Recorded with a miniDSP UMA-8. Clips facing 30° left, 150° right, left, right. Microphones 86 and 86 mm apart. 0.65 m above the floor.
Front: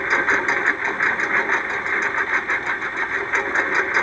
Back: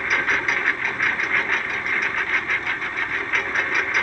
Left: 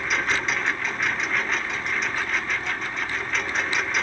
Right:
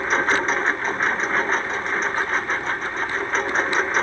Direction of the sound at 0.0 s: 35° right.